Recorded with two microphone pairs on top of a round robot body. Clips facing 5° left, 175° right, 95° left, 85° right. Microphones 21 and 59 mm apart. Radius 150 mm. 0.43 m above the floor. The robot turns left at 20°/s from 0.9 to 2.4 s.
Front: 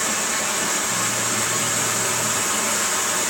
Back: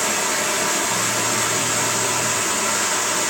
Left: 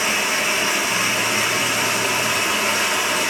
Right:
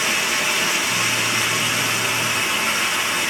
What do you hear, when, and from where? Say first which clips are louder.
0.0 s running water: back 2 dB, left 1 dB; 150° left, 1.3 m; by 3.3 s 120° left, 1.3 m